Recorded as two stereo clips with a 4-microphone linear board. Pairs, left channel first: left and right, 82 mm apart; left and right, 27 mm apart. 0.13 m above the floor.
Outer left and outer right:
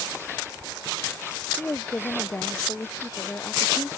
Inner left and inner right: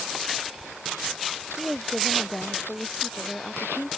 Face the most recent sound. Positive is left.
turn(degrees=25)  # may be behind; listen again after turning